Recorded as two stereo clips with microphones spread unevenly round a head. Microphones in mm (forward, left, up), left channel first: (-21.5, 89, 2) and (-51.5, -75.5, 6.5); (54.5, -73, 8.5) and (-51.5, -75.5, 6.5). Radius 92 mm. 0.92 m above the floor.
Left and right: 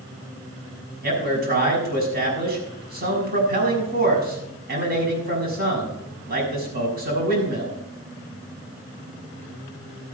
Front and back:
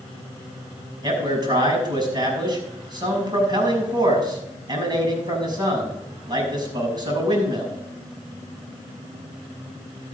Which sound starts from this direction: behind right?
A man speaking, at 1.0 s.